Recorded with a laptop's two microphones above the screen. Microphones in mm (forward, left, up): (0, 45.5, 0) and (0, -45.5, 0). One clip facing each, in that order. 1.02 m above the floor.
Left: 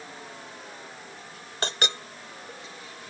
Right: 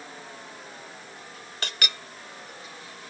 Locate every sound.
1.6 s a clink: 30° left (ahead or behind)